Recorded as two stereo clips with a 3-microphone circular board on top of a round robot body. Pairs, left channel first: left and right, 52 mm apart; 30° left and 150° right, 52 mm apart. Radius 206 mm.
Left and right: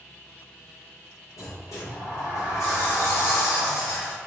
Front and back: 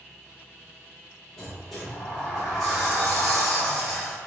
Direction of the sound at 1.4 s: 115° left.